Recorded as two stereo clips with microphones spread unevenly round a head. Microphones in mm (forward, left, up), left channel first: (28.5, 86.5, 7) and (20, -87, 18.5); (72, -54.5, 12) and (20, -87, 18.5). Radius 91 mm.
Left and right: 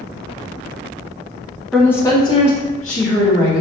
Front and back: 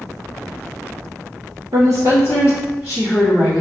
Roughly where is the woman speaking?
Behind.